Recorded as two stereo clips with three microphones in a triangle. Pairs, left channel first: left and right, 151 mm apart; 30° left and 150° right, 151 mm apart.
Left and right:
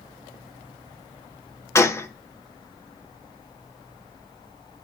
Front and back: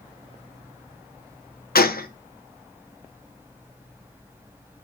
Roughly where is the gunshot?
Ahead.